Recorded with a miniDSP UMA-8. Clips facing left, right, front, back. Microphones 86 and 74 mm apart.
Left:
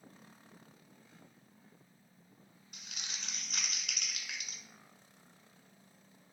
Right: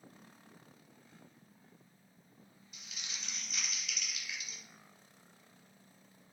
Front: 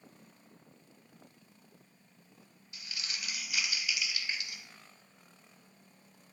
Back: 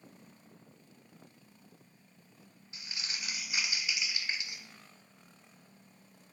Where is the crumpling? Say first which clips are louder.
Left 1 dB, even; 120° left, 0.6 m.